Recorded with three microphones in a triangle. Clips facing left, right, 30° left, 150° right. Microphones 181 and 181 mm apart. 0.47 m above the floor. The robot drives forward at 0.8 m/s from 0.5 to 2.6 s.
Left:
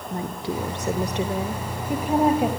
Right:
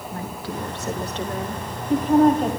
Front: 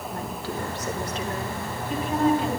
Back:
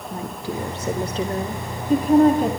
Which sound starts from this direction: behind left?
A woman speaking, at 0.1 s.